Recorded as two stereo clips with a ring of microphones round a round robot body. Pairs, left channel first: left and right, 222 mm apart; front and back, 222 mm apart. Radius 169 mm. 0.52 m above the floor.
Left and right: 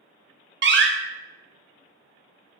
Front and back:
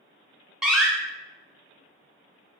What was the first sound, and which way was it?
A door slam, 95° right.